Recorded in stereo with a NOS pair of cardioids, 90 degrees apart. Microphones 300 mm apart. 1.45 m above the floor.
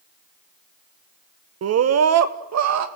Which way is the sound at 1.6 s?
50° right.